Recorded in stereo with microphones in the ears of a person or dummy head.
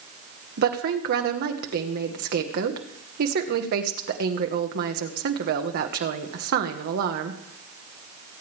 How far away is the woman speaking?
About 1.4 m.